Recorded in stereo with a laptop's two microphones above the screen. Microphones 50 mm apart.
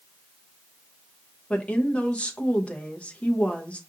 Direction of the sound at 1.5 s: 25° left (ahead or behind).